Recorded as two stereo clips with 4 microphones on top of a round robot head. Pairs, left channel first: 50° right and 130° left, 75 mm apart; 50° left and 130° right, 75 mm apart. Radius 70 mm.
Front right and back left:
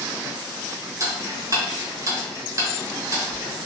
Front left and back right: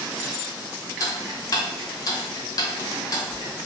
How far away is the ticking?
About 1.0 m.